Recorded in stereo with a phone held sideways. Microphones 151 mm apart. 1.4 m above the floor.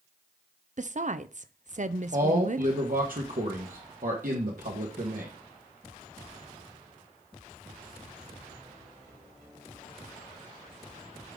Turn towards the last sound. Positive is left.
turn(degrees=-65)  # may be behind; listen again after turning